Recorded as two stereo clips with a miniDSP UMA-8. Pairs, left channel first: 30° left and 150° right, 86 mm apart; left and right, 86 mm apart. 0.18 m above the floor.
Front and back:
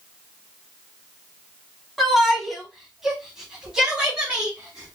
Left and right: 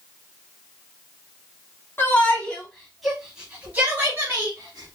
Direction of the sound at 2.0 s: 120° left.